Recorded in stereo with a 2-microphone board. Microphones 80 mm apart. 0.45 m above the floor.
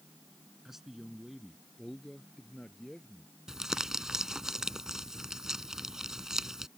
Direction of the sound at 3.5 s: 5° right (ahead or behind).